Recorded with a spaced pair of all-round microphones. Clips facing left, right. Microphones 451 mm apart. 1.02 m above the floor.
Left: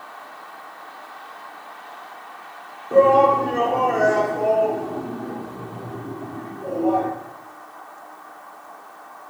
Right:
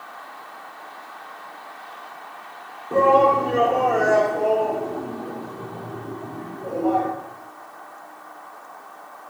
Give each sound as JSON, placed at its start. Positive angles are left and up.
{"t": 2.9, "sound": "a shout", "side_deg": -5, "distance_m": 1.8}